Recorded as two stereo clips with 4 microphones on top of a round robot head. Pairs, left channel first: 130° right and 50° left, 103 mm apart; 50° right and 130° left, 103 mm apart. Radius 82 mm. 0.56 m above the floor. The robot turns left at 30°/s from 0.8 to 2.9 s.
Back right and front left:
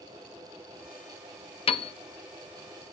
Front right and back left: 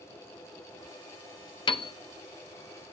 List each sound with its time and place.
1.7 s a piano: 95° right, 0.9 m; by 1.9 s 105° right, 0.9 m